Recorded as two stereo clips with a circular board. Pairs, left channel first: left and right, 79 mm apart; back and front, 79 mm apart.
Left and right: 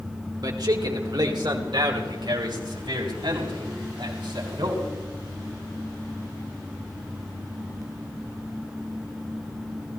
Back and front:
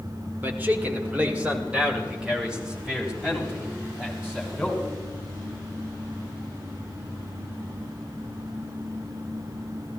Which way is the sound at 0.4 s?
60° right.